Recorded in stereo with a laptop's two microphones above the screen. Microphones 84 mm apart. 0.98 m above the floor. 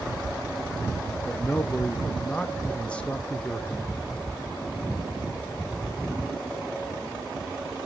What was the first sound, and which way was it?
A man speaking, 15° left (ahead or behind).